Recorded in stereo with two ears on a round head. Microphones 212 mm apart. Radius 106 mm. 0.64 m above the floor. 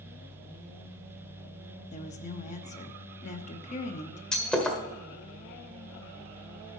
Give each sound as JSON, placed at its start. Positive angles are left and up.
{"t": 1.9, "sound": "a woman speaking", "side_deg": 30, "distance_m": 0.9}
{"t": 4.3, "sound": "breaking glass", "side_deg": 5, "distance_m": 1.5}